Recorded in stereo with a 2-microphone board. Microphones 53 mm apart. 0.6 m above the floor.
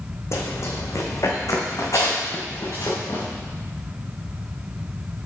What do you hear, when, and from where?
0.3 s running footsteps: 55° left (ahead or behind), 1.9 m; by 3.2 s 75° left (ahead or behind), 3 m